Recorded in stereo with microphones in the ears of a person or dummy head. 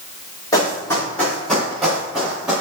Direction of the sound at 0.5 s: 20° left (ahead or behind).